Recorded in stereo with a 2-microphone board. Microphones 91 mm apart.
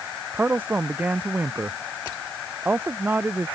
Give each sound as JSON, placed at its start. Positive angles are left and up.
{"t": 0.3, "sound": "a man speaking", "side_deg": -20}